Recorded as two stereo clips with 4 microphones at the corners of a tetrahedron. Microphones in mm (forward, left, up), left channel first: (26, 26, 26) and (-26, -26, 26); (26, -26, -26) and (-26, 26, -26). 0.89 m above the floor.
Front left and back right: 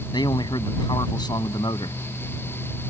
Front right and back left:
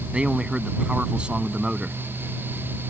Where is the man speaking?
60° left.